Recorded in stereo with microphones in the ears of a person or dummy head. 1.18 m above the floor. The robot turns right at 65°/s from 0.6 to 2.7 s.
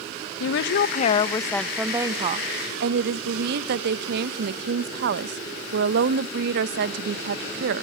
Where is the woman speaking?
110° left, 0.7 m; by 7.8 s 115° right, 0.7 m.